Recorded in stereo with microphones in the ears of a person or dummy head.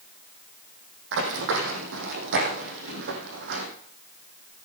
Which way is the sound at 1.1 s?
65° right (ahead or behind).